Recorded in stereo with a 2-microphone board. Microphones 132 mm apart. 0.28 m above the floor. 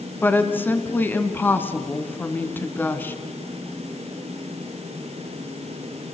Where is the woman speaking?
15° left (ahead or behind), 2.5 m.